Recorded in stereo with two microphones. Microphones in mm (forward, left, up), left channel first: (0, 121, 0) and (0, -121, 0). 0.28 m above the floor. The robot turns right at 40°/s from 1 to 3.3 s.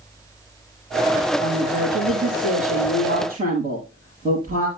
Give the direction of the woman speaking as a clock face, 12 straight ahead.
3 o'clock.